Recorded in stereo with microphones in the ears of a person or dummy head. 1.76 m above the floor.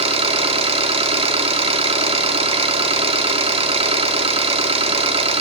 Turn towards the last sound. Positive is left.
turn(degrees=-30)  # may be behind; listen again after turning